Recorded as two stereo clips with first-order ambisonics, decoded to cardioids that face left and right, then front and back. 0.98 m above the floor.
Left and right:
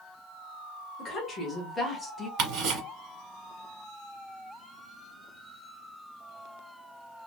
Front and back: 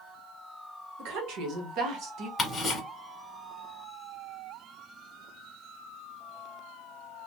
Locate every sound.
1.0 s a woman speaking: 160° left, 1.4 m; by 2.3 s straight behind, 0.8 m
2.4 s ticking: 70° right, 1.3 m